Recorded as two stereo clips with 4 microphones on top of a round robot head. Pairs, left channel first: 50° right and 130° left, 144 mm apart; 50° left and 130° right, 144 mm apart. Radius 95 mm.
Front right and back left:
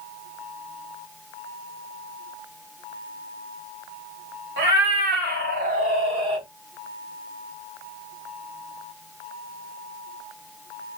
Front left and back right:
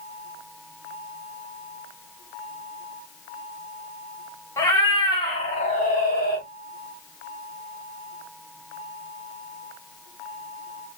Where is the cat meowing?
120° left, 2 m; by 6.5 s 65° left, 1.6 m.